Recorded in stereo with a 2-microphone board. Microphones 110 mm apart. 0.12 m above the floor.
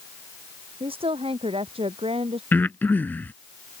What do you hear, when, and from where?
0.8 s a woman speaking: 65° right (ahead or behind); by 2.4 s 70° right (ahead or behind)
2.5 s breathing: 20° left (ahead or behind)